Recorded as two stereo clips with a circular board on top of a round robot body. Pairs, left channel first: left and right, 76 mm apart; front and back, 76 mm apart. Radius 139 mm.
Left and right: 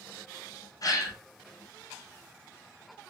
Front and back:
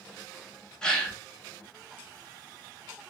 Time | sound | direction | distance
0.8 | a gasp | 80° left | 0.8 m